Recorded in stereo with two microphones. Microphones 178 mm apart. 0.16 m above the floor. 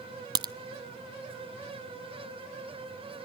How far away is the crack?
About 0.7 m.